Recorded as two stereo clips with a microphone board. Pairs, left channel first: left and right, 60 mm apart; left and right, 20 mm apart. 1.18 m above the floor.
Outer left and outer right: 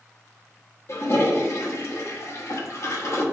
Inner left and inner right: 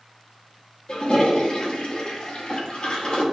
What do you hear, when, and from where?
0.9 s a toilet flushing: 50° left (ahead or behind), 1.0 m